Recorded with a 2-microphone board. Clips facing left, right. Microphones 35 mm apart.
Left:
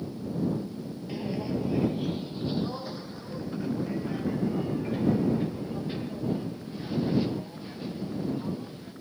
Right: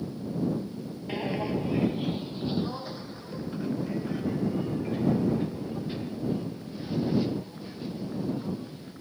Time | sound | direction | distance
1.1 | footsteps | 45° right (ahead or behind) | ?